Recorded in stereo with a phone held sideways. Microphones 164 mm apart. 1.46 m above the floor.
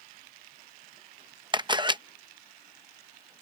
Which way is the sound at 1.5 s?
30° right (ahead or behind).